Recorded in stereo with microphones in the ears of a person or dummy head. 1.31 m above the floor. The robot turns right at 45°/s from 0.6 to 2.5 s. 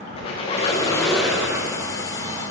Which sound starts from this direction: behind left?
A squeak, at 0.2 s.